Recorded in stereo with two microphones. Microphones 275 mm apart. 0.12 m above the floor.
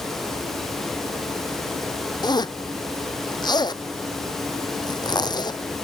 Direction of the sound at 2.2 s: 15° left (ahead or behind).